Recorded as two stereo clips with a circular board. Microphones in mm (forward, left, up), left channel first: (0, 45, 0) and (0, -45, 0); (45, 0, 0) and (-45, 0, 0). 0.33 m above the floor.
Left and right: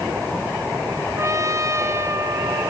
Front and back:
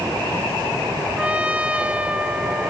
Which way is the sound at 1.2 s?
110° right.